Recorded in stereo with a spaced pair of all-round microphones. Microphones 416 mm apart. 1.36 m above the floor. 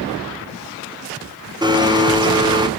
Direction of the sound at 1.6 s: 10° right (ahead or behind).